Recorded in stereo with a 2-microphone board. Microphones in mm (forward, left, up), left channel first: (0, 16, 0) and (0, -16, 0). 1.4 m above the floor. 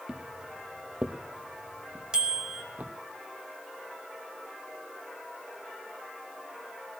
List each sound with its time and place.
0.1 s footsteps: 20° right (ahead or behind), 2 m; by 2.9 s 55° right (ahead or behind), 3 m
2.1 s a bicycle bell: 25° right (ahead or behind), 4 m